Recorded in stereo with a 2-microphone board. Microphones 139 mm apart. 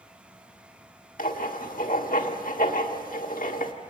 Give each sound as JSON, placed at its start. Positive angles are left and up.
{"t": 1.2, "sound": "writing", "side_deg": 80, "distance_m": 1.6}